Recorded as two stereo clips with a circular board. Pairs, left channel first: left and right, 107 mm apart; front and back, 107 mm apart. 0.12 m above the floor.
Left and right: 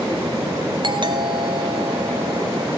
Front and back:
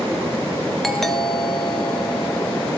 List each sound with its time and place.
0.8 s a doorbell: 90° right, 2.5 m